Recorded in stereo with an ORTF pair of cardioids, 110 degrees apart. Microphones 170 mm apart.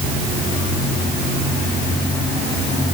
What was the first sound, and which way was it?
Only background noise.